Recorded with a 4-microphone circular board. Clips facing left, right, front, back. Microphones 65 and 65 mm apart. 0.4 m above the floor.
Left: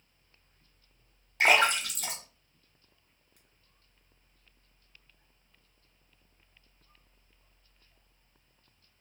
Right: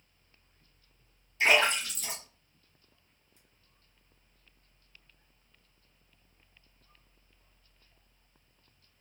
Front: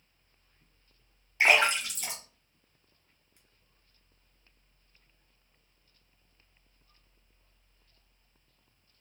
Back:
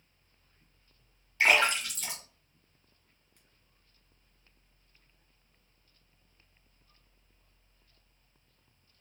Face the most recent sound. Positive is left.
turn(degrees=70)